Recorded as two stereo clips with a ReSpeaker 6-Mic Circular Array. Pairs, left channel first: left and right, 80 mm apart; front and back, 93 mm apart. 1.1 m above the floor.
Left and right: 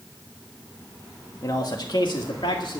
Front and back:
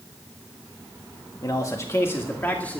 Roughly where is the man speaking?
Ahead left.